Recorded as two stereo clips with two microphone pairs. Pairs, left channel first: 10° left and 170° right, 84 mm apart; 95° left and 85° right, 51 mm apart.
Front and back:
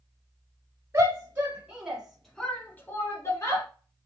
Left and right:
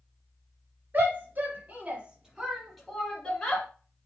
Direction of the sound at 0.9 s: 120° right.